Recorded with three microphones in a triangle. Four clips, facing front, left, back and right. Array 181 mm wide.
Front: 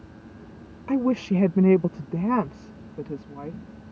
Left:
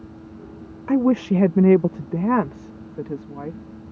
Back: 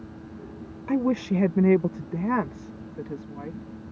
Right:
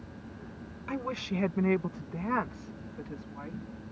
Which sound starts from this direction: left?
A woman speaking, at 0.9 s.